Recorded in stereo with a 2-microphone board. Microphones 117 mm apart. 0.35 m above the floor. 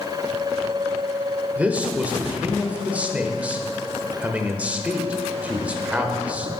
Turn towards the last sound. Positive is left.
turn(degrees=-10)  # may be behind; listen again after turning